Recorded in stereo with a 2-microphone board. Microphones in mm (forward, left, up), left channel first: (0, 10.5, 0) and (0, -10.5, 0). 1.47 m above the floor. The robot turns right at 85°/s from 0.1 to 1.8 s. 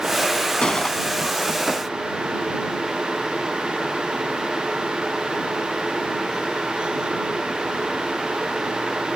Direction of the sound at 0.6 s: 115° left.